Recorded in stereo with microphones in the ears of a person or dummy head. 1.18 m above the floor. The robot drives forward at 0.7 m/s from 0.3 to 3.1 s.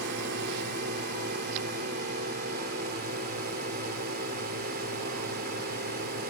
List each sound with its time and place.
0.0 s a drone: 55° right (ahead or behind); by 6.3 s 50° right (ahead or behind)